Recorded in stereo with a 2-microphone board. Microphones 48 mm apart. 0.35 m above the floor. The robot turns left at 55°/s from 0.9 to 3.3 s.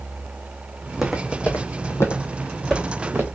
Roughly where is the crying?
No crying in this recording.